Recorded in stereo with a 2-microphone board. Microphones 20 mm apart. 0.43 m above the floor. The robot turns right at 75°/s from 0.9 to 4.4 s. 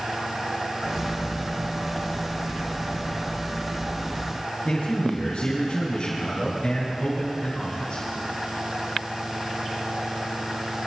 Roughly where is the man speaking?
Left.